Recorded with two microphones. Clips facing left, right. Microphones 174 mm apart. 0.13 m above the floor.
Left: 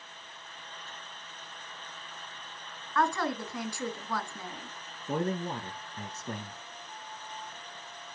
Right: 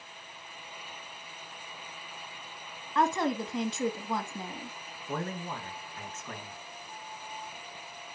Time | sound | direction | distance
3.0 | a woman speaking | 20° right (ahead or behind) | 1.3 m
5.1 | a man speaking | 35° left (ahead or behind) | 1.4 m